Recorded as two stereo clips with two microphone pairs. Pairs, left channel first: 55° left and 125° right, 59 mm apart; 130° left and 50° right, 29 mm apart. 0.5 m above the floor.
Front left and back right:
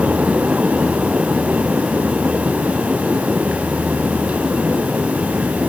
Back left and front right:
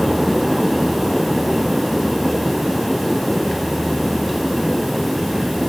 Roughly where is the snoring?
I don't hear snoring.